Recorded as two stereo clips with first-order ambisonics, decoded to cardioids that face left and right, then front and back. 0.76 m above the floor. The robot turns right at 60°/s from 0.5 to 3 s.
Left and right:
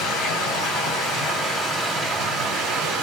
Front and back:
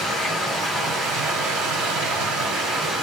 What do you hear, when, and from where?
0.0 s running water: 100° left, 2.5 m; by 3.0 s 110° right, 2.5 m